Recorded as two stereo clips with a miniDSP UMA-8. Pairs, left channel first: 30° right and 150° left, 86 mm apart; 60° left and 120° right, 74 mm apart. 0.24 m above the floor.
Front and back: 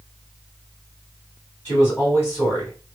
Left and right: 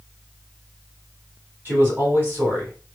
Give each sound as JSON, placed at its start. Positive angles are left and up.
{"t": 1.6, "sound": "a man speaking", "azimuth_deg": -75, "distance_m": 1.6}